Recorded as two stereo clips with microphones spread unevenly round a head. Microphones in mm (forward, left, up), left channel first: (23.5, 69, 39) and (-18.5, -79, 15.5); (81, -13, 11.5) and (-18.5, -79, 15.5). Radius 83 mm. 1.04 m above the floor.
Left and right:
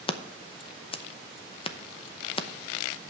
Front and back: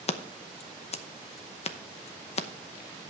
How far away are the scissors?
About 0.8 m.